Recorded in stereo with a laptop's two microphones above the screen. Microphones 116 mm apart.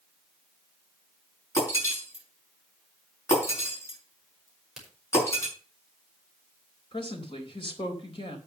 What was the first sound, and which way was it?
Breaking glass, 25° left (ahead or behind).